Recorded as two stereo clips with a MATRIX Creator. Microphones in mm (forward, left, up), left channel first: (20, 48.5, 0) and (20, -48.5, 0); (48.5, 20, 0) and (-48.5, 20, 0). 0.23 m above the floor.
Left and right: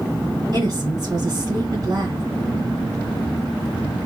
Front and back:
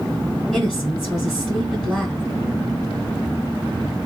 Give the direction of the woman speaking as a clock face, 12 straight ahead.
3 o'clock.